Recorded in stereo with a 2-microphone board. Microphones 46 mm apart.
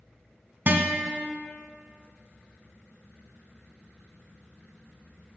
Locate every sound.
0.7 s a guitar: 45° right (ahead or behind), 1.0 m